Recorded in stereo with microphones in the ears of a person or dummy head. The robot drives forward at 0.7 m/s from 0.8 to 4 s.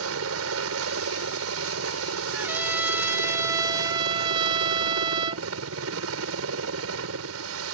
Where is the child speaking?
I don't hear a child speaking.